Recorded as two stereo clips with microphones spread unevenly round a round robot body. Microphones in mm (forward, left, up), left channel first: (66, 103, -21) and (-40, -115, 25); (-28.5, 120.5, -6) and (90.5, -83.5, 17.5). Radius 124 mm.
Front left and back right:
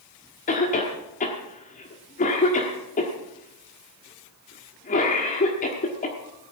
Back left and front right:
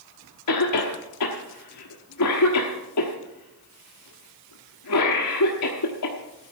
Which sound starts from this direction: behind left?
A cough, at 0.5 s.